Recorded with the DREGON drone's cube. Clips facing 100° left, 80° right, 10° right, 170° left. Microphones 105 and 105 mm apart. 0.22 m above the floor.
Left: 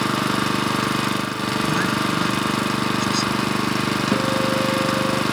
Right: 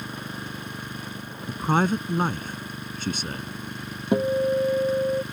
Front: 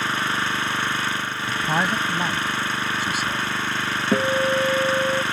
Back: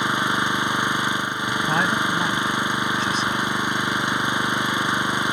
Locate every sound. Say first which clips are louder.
0.0 s an engine running: left 14 dB, back 2 dB; 95° left
1.5 s a man speaking: right 1 dB, back 1 dB; 90° right
4.1 s a guitar: right 2 dB, front 4 dB; 5° right